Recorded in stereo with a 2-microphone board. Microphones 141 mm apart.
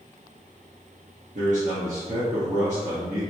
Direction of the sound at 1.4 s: 60° right (ahead or behind).